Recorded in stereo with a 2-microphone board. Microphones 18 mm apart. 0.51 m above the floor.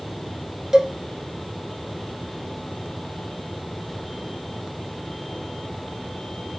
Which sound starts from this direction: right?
A cowbell, at 0.7 s.